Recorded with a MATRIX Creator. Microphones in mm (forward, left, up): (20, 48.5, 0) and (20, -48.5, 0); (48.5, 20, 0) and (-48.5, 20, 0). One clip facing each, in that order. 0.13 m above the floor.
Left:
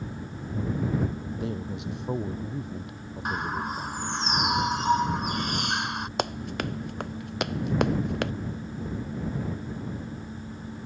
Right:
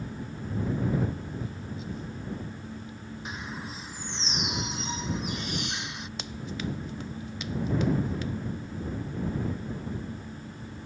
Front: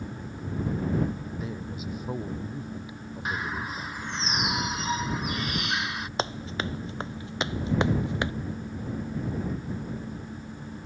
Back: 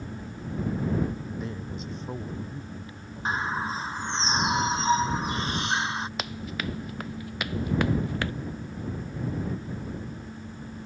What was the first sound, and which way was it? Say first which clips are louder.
A man speaking: left 5 dB, even; 85° left.